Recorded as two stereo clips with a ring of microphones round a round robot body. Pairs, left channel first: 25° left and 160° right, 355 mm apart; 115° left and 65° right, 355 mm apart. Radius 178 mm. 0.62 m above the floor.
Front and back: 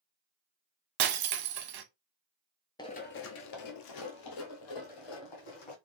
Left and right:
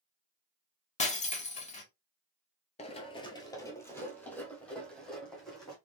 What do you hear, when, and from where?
1.0 s breaking glass: straight behind, 0.8 m
2.8 s running footsteps: 80° left, 0.6 m; by 5.8 s 25° left, 2.0 m